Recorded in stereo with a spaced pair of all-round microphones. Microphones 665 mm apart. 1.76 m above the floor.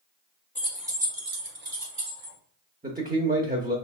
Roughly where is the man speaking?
Centre.